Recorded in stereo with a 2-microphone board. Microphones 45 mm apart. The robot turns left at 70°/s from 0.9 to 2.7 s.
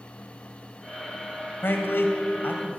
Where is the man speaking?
115° left, 2 m; by 2.8 s 40° left, 2 m.